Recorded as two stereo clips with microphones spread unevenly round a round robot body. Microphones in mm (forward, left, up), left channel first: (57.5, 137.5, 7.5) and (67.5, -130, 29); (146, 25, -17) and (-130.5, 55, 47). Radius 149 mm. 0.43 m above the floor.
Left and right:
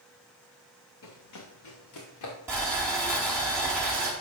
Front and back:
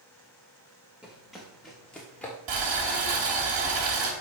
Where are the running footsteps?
90° left, 3.5 m; by 2.4 s 80° left, 4 m.